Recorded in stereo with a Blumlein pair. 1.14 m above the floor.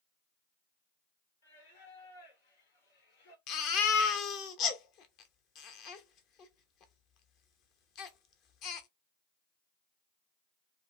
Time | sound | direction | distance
1.4 | singing | 65° left | 1.6 m
3.5 | a baby crying | 40° left | 0.8 m